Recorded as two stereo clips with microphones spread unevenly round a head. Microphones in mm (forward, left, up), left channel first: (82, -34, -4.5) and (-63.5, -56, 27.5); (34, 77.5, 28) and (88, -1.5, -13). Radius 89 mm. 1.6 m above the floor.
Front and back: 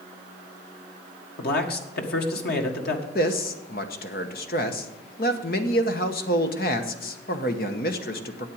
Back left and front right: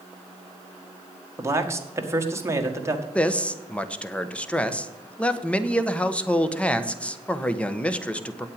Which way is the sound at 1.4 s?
5° left.